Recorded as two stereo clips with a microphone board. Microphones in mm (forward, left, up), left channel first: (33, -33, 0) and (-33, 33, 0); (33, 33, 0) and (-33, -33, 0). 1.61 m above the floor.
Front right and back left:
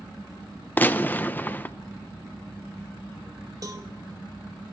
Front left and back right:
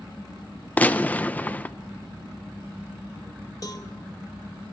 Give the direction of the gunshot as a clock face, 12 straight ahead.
12 o'clock.